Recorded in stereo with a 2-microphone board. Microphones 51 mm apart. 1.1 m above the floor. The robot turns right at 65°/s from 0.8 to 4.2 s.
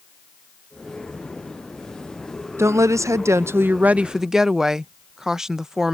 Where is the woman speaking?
115° right; by 5.9 s 10° right.